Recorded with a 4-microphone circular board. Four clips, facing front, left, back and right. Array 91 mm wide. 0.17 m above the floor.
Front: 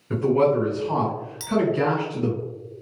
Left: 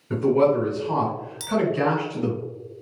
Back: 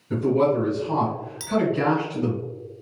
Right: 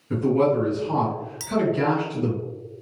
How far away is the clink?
About 0.6 m.